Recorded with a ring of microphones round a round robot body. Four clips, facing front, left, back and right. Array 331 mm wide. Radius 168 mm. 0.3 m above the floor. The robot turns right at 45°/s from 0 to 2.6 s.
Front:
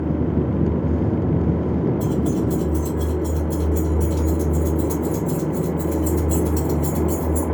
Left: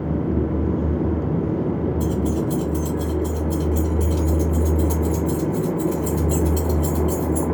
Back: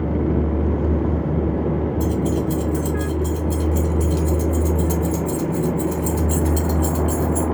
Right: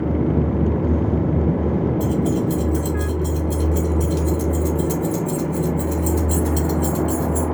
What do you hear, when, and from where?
2.0 s keys jangling: 165° right, 2 m; by 7.5 s 140° right, 2 m